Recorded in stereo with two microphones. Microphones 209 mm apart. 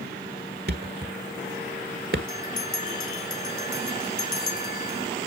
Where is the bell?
45° left (ahead or behind), 2.5 m.